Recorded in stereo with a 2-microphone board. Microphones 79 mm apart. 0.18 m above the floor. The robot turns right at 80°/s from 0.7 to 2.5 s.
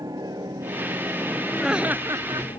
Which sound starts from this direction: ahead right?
A helicopter, at 0.0 s.